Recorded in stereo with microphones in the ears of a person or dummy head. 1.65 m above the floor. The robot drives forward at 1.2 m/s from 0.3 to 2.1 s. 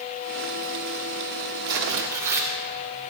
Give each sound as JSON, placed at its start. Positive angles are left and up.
{"t": 1.6, "sound": "tearing paper", "side_deg": -20, "distance_m": 1.0}